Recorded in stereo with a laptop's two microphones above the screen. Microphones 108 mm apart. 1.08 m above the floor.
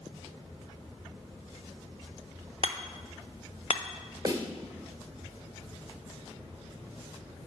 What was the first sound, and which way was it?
Hammering, 60° left (ahead or behind).